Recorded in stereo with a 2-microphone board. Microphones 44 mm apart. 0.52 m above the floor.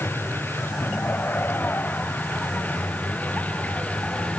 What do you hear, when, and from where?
0.0 s a vehicle: 55° left (ahead or behind); by 4.4 s 30° left (ahead or behind)